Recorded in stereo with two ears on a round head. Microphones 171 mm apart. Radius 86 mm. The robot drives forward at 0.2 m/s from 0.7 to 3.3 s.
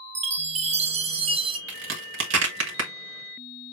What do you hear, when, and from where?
0.1 s a chime: 35° right (ahead or behind), 0.5 m; by 1.6 s 30° right (ahead or behind), 0.6 m
1.7 s a crack: 70° right (ahead or behind), 1.8 m; by 2.9 s 65° right (ahead or behind), 1.8 m